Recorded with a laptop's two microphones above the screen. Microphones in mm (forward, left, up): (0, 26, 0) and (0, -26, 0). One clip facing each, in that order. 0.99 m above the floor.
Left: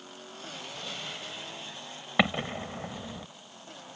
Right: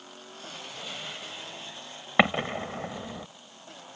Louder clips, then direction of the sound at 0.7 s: Right 1 dB; 10° right (ahead or behind).